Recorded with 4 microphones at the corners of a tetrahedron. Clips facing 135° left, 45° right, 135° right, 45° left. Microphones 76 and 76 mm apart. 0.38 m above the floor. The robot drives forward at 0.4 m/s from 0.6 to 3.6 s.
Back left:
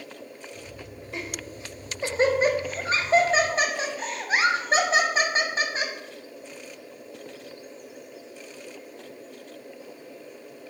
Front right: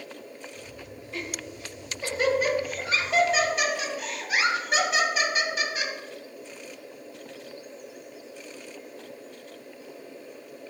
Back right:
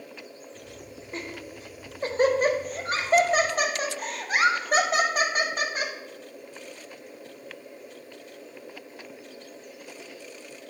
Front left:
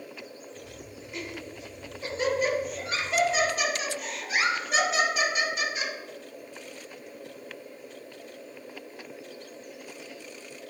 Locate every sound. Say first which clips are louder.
1.1 s laughter: even, back right 1 dB; 165° right, 1.1 m; by 5.9 s 175° right, 1.9 m